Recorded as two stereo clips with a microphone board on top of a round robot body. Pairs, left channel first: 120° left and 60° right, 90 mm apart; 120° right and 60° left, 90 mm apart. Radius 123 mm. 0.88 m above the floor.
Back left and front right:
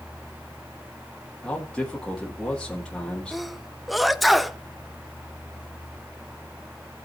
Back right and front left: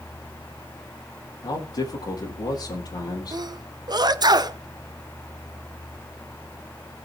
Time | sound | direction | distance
1.4 | a man speaking | 160° right | 2 m
3.3 | a sneeze | 30° left | 1.1 m